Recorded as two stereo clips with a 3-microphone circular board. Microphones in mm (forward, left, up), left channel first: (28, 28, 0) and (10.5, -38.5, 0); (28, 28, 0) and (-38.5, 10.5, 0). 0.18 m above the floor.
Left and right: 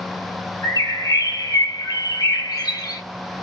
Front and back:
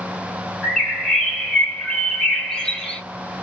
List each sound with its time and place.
0.6 s a bird: 100° left, 1.1 m